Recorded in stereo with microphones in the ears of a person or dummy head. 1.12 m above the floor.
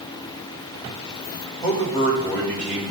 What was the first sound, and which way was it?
A man speaking, 20° left (ahead or behind).